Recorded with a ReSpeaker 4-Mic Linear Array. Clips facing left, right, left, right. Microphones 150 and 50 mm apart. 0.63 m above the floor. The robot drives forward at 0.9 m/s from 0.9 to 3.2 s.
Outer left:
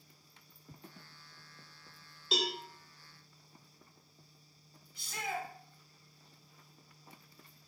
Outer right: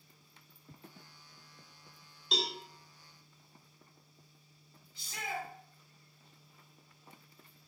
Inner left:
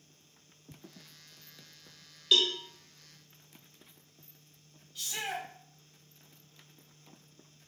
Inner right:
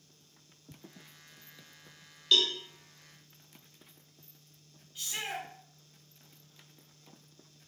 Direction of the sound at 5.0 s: 25° right (ahead or behind).